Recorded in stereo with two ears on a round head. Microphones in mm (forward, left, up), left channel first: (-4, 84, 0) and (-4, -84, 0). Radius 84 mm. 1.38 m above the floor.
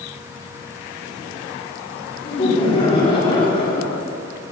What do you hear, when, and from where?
2.2 s laughter: 30° left (ahead or behind), 4.5 m